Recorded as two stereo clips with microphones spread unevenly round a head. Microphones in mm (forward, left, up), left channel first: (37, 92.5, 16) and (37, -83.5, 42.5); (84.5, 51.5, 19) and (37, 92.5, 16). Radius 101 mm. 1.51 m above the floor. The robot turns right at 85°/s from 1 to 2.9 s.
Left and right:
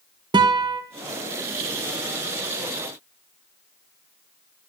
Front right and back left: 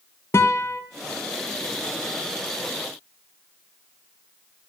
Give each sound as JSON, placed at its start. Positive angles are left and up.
{"t": 0.3, "sound": "a guitar", "azimuth_deg": -55, "distance_m": 0.8}